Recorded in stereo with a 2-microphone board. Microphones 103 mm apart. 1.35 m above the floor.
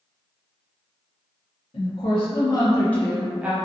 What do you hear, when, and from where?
1.7 s a woman speaking: 65° left (ahead or behind), 0.8 m; by 3.5 s 15° right (ahead or behind), 0.6 m